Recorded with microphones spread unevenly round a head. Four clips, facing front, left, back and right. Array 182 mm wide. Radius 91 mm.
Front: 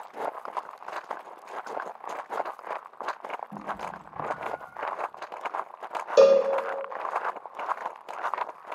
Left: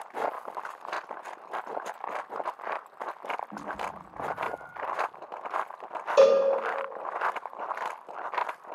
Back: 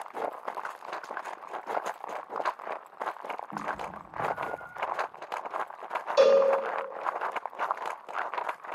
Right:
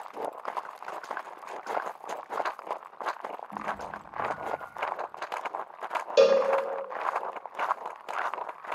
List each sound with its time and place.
3.5 s a cat meowing: 5° left, 3 m; by 4.8 s 15° left, 2.5 m
6.2 s a cowbell: 5° right, 0.6 m